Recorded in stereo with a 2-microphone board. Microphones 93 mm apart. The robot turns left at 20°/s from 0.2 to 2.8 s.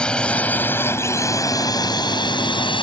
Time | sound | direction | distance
0.0 | a drone | 10° left (ahead or behind) | ?